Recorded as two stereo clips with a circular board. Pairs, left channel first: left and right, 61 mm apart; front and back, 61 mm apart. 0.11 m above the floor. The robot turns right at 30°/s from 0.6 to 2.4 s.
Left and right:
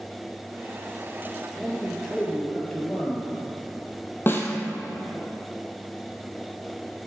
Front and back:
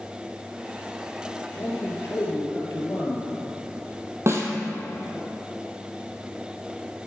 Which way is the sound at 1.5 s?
Straight ahead.